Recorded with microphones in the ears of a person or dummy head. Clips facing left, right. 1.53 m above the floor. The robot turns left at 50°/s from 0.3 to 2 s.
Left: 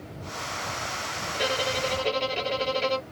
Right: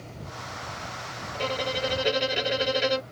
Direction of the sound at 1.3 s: 20° left.